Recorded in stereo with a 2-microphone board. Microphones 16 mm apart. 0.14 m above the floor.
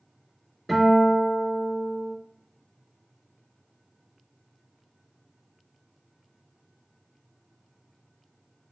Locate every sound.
0.7 s a guitar: 5° left (ahead or behind), 2.0 m